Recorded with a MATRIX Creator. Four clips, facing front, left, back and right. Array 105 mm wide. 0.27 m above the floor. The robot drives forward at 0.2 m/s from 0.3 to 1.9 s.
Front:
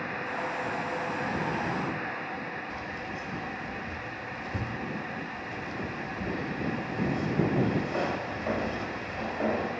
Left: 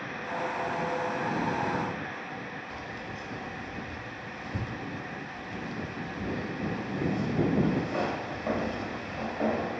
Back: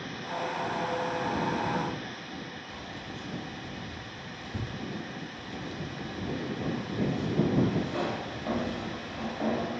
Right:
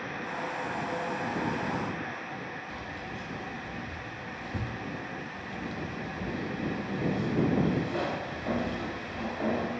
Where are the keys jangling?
40° left, 0.6 m.